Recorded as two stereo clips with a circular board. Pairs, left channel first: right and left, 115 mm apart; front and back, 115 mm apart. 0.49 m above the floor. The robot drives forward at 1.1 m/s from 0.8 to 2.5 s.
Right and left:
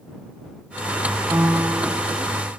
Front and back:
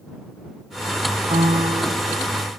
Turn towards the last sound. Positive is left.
turn(degrees=170)